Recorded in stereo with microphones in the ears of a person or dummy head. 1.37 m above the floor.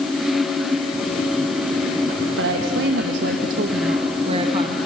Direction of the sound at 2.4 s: 75° right (ahead or behind).